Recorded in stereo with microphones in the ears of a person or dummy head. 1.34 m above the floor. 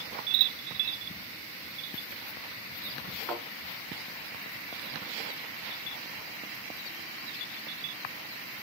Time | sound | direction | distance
3.3 | a thud | 10° left (ahead or behind) | 7.5 m